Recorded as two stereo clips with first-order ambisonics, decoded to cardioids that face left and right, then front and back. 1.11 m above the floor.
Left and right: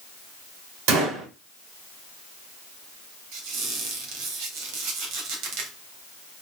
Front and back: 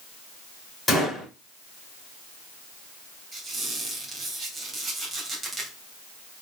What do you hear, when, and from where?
0.9 s a gunshot: 85° right, 3.5 m
3.3 s a squeak: 105° right, 3 m